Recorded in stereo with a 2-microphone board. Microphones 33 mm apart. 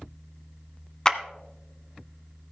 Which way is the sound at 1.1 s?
20° left (ahead or behind).